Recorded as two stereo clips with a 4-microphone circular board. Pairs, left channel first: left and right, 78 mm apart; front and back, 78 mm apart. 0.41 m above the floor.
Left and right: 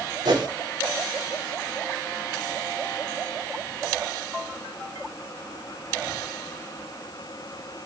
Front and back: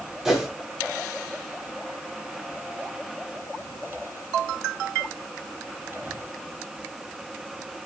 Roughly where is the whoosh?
Right.